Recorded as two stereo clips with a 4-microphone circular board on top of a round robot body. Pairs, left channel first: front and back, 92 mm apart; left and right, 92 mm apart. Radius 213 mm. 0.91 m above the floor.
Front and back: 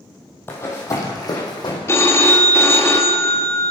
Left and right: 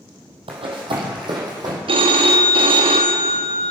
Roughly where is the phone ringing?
Ahead right.